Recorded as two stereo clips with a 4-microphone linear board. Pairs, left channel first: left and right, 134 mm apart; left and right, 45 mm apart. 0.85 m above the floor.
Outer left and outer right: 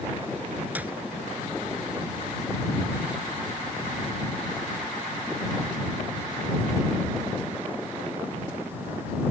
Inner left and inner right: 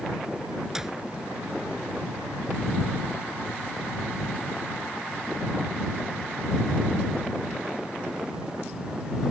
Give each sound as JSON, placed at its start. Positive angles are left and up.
{"t": 0.8, "sound": "a clap", "side_deg": -10}